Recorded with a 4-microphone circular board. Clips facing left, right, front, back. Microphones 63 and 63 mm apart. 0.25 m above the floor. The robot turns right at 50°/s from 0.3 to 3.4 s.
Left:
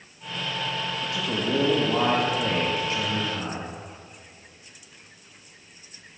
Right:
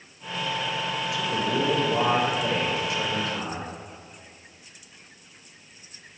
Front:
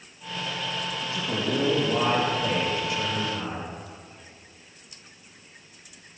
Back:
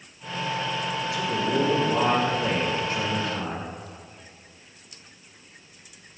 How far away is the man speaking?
About 5.5 m.